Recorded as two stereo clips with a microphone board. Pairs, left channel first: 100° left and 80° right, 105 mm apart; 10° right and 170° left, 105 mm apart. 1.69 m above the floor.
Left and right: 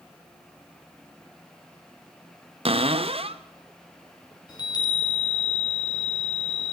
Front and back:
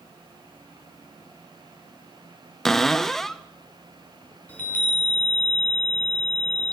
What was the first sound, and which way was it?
A cupboard door, 100° right.